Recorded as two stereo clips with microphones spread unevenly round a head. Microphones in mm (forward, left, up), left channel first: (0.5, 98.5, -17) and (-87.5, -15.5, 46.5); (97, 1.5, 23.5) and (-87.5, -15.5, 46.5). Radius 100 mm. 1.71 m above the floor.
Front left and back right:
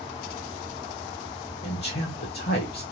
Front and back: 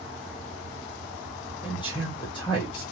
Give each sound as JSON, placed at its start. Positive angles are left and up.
{"t": 1.6, "sound": "a man speaking", "azimuth_deg": 75, "distance_m": 1.1}